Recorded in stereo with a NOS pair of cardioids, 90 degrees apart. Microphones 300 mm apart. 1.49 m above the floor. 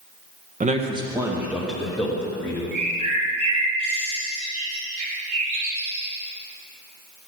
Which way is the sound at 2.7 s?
70° right.